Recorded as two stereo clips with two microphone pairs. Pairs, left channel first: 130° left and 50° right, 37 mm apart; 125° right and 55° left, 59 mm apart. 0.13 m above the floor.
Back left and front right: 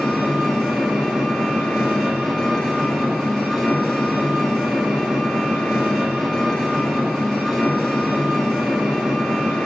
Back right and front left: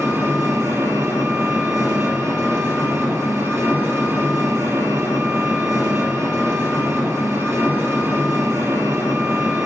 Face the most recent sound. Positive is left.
turn(degrees=55)